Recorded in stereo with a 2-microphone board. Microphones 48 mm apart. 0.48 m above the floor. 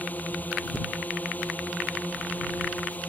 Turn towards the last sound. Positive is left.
turn(degrees=35)  # may be behind; listen again after turning